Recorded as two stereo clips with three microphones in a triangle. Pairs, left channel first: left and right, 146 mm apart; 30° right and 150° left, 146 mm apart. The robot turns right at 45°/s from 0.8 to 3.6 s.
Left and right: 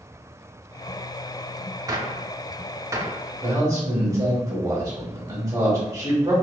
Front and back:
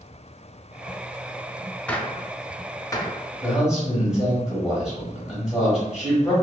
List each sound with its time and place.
1.9 s a gunshot: 100° right, 0.5 m; by 3.2 s 40° right, 0.5 m
3.4 s a man speaking: 135° right, 1.5 m; by 6.3 s 130° right, 1.5 m